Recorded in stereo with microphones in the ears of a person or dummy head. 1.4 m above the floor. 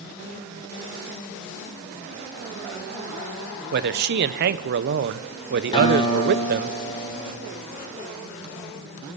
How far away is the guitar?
About 4 m.